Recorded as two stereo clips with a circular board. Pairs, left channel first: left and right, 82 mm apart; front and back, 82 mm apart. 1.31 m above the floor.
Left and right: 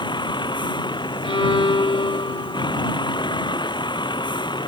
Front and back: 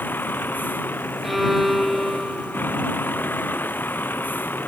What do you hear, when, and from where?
0.0 s a vehicle: 65° left
1.2 s a violin: 90° left